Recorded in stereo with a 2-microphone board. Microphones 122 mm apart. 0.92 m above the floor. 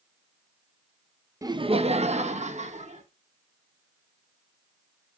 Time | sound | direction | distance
1.4 | laughter | 25° right (ahead or behind) | 0.5 m